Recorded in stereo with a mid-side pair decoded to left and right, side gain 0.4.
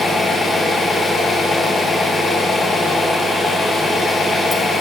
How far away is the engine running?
About 1.1 m.